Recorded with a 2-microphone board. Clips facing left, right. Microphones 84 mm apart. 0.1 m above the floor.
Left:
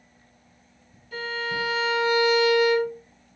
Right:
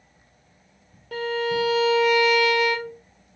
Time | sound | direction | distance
1.1 | a violin | 65° right (ahead or behind) | 0.9 m